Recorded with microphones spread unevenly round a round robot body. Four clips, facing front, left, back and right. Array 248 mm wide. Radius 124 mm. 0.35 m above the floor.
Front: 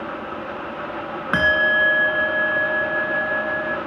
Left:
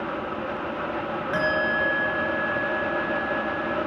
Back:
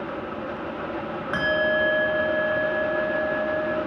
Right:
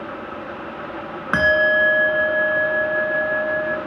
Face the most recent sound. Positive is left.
turn(degrees=-40)